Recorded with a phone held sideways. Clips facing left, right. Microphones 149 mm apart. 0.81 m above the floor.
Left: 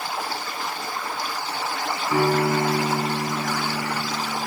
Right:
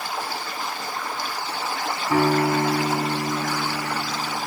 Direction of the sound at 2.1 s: 80° right.